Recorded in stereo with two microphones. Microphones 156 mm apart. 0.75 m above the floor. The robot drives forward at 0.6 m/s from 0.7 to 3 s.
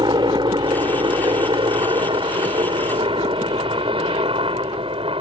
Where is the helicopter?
30° right (ahead or behind); by 5.2 s 35° right (ahead or behind).